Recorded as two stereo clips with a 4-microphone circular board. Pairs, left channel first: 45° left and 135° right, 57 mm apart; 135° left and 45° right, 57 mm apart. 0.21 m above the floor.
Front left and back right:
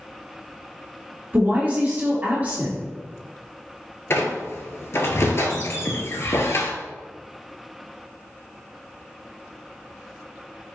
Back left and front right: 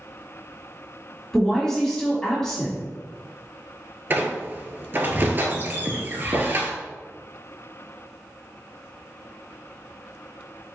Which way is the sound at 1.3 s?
150° right.